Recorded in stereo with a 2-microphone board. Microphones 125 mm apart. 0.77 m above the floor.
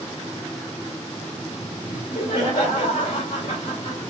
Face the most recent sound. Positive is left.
turn(degrees=40)  # may be behind; listen again after turning